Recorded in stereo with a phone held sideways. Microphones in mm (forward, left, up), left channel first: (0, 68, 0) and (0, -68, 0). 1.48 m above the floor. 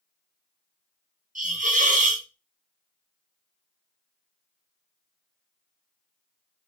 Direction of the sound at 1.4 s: 60° right (ahead or behind).